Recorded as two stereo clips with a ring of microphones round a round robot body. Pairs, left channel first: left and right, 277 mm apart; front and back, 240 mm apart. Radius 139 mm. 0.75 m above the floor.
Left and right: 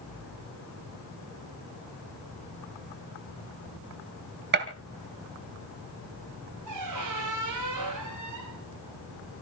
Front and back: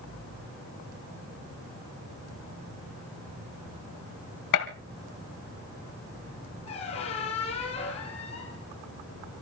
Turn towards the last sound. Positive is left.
turn(degrees=-70)